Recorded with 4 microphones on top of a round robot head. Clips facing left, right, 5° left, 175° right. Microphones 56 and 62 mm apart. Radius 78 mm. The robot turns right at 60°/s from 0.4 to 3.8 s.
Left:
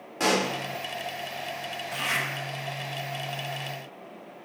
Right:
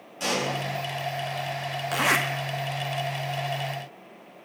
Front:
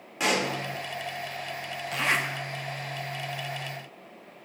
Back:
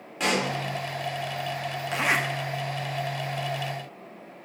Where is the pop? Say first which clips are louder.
Left 3 dB, back 1 dB; 90° left, 2.5 m; by 0.5 s 100° left, 2.5 m.